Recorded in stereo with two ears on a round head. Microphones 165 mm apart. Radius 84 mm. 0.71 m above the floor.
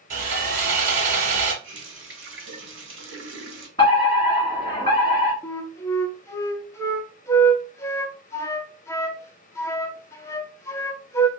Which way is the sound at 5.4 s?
15° left (ahead or behind).